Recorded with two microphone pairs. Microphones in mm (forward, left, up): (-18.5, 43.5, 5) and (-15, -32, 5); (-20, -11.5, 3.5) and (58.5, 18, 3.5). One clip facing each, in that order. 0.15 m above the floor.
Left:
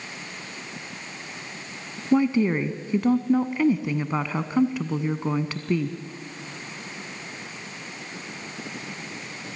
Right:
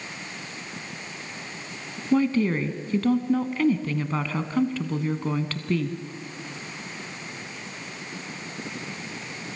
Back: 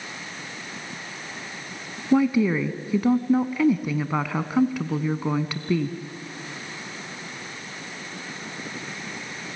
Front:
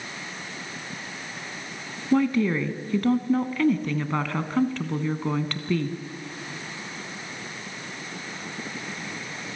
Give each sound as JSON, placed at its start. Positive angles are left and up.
{"t": 2.1, "sound": "a woman speaking", "azimuth_deg": 135, "distance_m": 1.0}